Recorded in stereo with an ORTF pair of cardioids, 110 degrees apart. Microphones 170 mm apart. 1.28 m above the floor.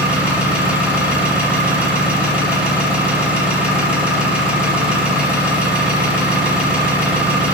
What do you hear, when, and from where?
0.0 s an engine running: 10° right, 2 m